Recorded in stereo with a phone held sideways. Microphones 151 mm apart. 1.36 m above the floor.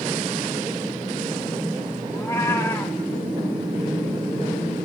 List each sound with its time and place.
2.1 s a cat meowing: 15° left (ahead or behind), 1.1 m